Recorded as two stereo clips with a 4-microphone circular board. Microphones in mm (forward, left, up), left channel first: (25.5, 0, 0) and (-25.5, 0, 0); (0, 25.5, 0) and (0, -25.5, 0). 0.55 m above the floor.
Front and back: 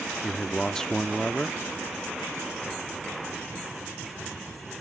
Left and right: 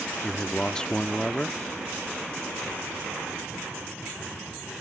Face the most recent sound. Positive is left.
turn(degrees=50)